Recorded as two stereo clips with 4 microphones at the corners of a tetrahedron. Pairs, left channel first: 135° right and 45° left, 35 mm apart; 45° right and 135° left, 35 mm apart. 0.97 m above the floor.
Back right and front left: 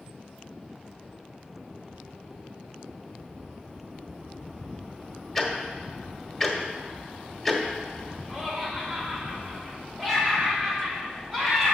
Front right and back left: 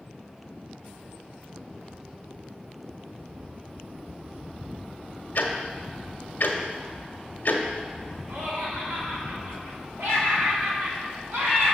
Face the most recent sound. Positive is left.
turn(degrees=140)